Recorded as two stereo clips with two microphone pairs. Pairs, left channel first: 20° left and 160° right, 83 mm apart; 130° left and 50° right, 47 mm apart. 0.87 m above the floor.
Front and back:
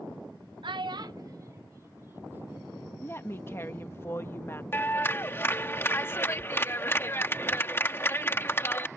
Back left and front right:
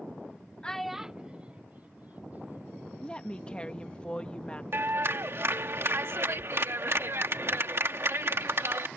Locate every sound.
0.6 s a child speaking: 160° right; by 2.9 s 95° right
3.0 s a woman speaking: 70° left
4.7 s a clap: 40° right